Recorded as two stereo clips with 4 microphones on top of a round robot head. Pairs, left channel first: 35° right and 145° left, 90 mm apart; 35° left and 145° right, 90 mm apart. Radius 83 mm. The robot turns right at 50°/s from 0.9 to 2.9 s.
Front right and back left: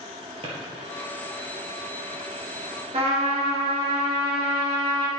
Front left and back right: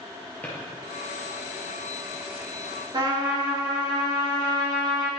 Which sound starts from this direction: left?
A drawer, at 0.4 s.